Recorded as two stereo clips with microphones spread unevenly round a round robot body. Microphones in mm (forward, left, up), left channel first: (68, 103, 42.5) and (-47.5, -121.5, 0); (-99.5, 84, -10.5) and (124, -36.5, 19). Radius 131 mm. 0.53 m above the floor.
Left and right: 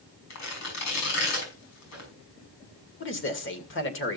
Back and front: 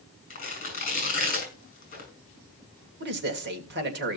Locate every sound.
0.3 s tearing paper: 95° left, 6.5 m
3.0 s a man speaking: 20° left, 2 m